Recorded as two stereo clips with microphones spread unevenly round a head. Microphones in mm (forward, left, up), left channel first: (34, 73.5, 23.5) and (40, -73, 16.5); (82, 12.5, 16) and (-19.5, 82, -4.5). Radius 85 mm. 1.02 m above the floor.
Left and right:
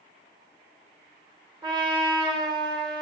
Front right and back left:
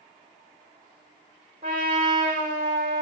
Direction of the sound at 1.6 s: 155° right.